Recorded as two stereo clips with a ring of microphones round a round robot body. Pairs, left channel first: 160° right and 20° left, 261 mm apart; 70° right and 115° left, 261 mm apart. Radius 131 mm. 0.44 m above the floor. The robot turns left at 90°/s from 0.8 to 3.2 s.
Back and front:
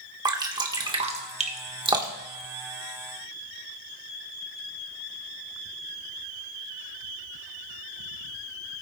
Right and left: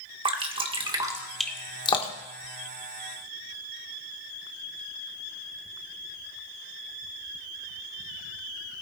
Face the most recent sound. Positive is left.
turn(degrees=-140)